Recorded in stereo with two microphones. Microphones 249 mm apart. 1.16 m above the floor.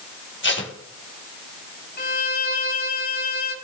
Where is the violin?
40° left (ahead or behind), 0.8 m.